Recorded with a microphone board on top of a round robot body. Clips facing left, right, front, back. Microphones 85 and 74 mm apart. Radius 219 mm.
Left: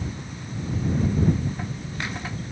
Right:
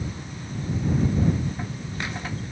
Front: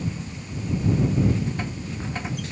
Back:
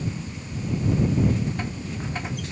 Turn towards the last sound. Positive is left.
No sound to turn to.